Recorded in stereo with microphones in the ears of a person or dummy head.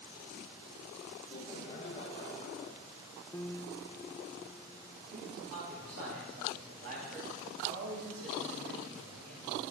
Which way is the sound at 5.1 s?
55° right (ahead or behind).